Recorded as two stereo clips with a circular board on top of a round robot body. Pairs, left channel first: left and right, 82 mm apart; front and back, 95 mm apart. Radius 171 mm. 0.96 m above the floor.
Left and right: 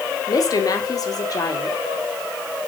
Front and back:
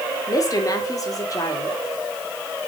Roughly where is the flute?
No flute in this recording.